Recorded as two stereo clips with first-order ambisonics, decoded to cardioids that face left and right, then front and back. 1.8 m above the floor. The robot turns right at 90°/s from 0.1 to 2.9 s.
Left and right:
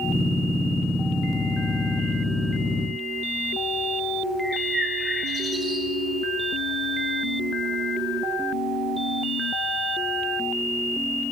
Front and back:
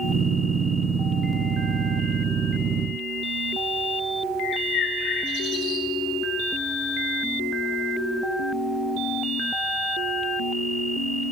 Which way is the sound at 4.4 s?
25° right.